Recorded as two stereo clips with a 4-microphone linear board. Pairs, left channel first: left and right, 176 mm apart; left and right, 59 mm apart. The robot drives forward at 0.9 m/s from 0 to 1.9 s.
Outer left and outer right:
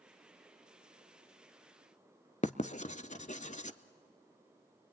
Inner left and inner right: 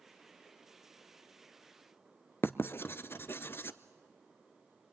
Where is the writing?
40° left (ahead or behind), 0.6 m.